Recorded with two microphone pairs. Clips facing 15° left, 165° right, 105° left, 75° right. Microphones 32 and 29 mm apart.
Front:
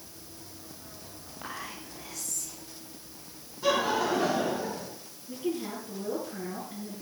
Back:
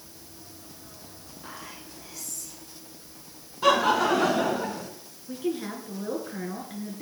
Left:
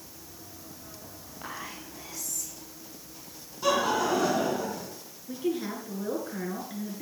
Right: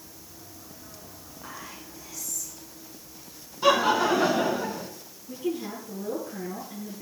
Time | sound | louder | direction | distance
1.4 | whispering | front 3 dB, left 2 dB | 55° left | 6.5 m
3.6 | laughter | back 5 dB, right 4 dB | 140° right | 3 m
5.3 | a woman speaking | back 2 dB, left 1 dB | 160° left | 5.5 m